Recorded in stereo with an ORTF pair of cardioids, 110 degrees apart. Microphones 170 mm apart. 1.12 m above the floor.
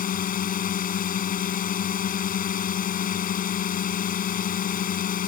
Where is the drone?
55° left.